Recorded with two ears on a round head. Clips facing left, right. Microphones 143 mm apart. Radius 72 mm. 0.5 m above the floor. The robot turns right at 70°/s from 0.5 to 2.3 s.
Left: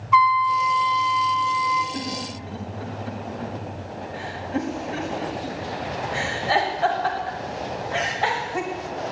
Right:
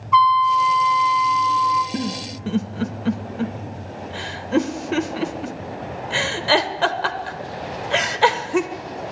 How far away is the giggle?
About 0.7 m.